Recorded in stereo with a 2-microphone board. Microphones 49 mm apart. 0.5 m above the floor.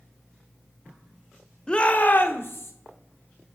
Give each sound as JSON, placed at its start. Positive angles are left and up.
{"t": 1.7, "sound": "a shout", "side_deg": 15, "distance_m": 0.7}